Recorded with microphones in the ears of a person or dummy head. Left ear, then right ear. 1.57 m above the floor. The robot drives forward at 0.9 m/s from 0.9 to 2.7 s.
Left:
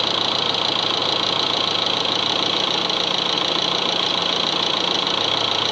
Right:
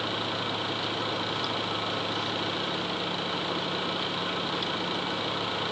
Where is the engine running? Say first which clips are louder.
Left 11 dB; 50° left (ahead or behind).